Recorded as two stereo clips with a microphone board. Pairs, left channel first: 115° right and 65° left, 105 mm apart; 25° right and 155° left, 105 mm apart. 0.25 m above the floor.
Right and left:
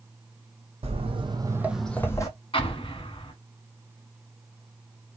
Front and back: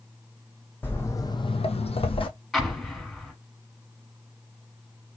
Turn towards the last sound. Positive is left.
turn(degrees=-110)